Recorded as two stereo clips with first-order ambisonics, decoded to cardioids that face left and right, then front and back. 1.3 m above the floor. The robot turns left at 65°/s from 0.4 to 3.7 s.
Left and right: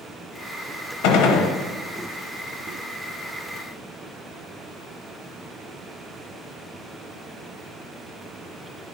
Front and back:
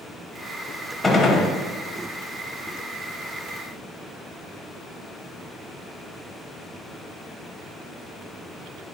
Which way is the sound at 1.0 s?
85° left.